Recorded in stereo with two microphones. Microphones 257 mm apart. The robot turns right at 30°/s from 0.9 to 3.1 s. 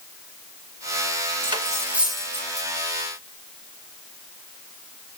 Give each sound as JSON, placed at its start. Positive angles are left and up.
{"t": 1.4, "sound": "cutlery clinking", "side_deg": -20, "distance_m": 2.0}